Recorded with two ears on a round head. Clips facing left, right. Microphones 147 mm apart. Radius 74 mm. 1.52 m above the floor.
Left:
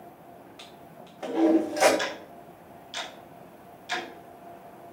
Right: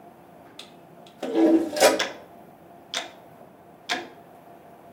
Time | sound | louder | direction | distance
0.6 | a toilet flushing | even | 40° right (ahead or behind) | 1.3 m
2.0 | ticking | right 1 dB | 70° right (ahead or behind) | 1.4 m